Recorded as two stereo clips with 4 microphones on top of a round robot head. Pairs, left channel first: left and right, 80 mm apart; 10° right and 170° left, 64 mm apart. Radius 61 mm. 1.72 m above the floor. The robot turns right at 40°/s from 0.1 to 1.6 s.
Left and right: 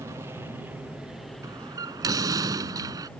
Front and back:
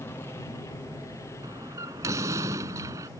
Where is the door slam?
140° right; by 3.1 s 135° right.